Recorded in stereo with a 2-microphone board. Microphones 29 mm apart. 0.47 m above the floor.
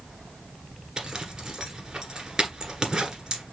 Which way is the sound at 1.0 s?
25° right (ahead or behind).